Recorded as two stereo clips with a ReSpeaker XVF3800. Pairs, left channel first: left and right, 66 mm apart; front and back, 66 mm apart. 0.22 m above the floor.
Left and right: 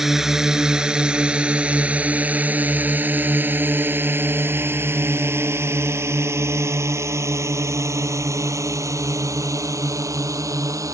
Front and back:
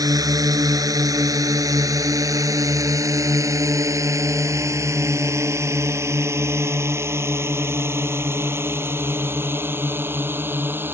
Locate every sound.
0.0 s a drone: 175° right; by 10.9 s 125° right